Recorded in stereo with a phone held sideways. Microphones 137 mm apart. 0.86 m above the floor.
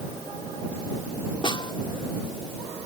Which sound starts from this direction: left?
A snare drum, at 1.4 s.